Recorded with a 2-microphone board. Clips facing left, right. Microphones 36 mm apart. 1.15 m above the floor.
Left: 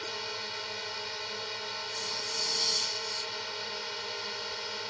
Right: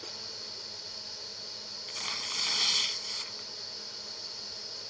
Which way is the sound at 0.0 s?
60° left (ahead or behind).